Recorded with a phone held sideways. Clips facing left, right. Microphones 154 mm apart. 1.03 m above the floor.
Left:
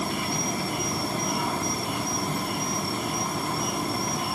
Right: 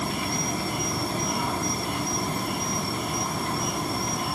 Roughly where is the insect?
Centre.